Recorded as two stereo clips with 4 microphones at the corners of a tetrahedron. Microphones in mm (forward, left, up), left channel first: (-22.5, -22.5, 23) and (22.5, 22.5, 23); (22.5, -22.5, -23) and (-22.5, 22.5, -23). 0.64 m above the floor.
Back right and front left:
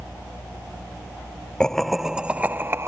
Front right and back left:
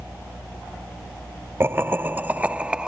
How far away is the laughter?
About 0.7 m.